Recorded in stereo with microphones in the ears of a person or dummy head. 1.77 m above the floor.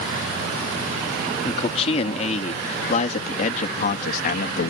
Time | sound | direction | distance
1.4 | a man speaking | 35° left (ahead or behind) | ?